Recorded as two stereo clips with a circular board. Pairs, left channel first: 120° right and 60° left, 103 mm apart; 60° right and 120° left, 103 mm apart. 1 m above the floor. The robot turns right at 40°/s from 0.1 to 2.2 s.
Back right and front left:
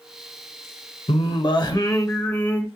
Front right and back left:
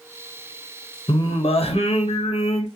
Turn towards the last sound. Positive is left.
turn(degrees=-50)